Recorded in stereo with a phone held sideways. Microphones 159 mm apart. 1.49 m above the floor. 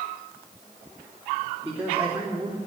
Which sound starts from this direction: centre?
A man speaking, at 1.6 s.